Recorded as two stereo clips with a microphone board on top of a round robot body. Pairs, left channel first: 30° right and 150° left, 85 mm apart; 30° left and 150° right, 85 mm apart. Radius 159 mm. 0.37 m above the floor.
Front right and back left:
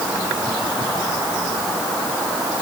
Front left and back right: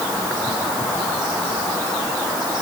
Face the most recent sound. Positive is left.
No sound to turn to.